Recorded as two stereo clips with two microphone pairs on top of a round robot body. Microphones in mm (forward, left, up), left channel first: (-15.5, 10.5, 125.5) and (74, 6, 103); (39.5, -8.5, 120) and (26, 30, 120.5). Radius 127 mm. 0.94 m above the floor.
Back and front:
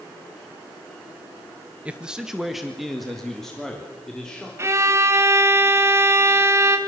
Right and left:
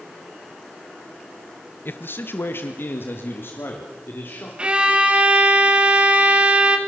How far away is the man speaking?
About 1.3 m.